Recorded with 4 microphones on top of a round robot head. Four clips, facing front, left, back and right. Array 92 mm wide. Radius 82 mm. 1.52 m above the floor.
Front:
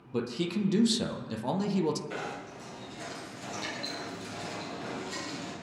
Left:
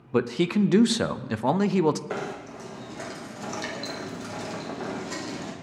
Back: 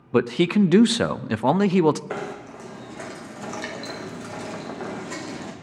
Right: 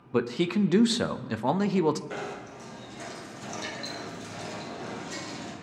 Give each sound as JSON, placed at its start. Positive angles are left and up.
{"t": 0.1, "sound": "a man speaking", "azimuth_deg": 175, "distance_m": 0.5}
{"t": 2.1, "sound": "knocking", "azimuth_deg": 150, "distance_m": 1.7}